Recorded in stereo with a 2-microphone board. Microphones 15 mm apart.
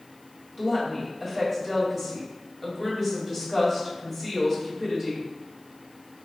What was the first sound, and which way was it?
A woman speaking, 20° right (ahead or behind).